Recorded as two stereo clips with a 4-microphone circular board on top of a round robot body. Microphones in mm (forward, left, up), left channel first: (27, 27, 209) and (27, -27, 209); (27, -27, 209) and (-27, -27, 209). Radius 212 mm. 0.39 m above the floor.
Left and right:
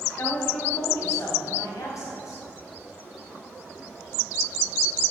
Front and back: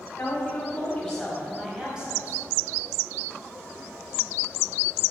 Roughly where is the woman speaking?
Ahead left.